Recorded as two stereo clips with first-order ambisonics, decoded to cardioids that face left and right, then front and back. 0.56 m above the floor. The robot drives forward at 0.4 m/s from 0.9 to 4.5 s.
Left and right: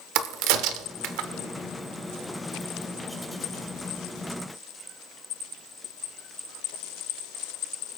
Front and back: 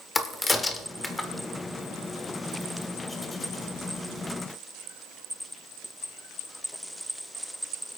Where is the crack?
75° right, 1.0 m; by 1.3 s 85° right, 0.9 m.